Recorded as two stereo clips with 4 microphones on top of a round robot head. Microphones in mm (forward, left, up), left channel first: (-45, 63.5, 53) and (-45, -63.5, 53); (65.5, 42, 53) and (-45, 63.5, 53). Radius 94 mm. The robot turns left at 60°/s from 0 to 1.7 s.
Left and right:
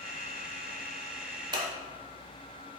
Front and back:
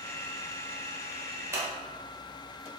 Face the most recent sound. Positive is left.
turn(degrees=-140)